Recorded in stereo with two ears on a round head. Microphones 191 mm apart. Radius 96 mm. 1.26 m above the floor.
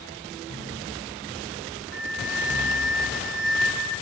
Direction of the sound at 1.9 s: 45° left (ahead or behind).